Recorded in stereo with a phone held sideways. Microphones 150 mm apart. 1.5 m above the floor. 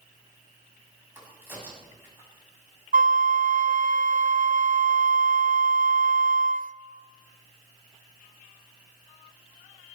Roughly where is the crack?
Centre.